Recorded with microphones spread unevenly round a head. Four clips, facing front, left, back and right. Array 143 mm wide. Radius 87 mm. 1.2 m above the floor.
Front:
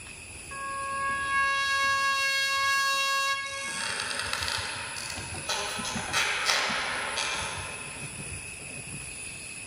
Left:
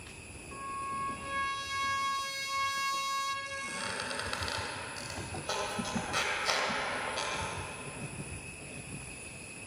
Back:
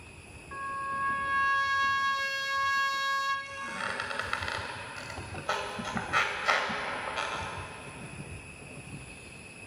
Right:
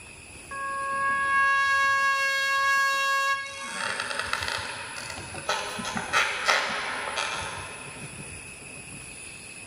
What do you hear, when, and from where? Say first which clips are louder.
0.5 s a trumpet: right 8 dB, front 1 dB; 85° right, 1.6 m
3.5 s a squeak: right 5 dB, even; 110° right, 4.5 m